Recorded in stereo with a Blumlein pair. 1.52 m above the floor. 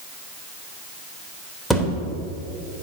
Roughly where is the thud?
Ahead.